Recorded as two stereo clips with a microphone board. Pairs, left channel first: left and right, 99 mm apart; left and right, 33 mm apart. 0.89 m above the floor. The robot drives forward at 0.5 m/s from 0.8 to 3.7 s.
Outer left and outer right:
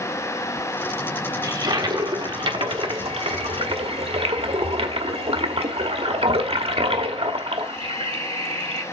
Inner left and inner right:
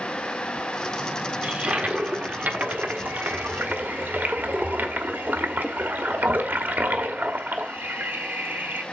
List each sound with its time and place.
1.4 s a toilet flushing: 40° right (ahead or behind), 1.4 m; by 8.8 s 80° right, 0.9 m